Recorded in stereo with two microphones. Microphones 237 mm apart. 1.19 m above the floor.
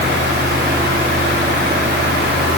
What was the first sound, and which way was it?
Only background noise.